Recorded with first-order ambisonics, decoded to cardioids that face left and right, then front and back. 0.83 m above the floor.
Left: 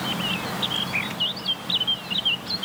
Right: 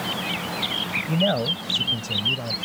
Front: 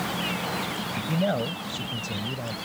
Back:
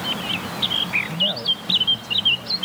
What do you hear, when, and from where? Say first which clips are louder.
1.1 s a man speaking: right 3 dB, back 6 dB; 75° right; by 2.6 s 65° right